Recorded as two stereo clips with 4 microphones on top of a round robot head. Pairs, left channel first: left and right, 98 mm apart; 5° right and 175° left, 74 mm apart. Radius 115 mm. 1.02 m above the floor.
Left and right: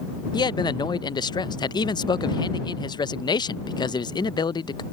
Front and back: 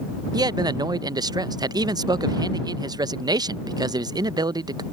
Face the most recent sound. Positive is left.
turn(degrees=140)